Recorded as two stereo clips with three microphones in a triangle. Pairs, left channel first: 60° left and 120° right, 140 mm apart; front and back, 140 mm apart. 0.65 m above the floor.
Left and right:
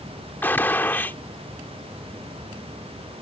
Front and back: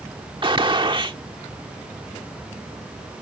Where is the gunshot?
135° left.